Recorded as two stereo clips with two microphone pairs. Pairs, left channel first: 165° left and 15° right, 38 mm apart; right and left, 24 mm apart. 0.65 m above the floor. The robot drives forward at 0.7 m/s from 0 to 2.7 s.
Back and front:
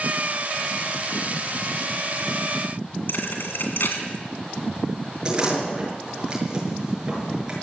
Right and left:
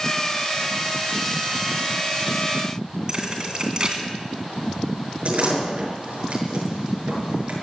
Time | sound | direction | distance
3.1 | a thud | 145° left | 2.5 m
5.2 | a door slam | 55° left | 6.5 m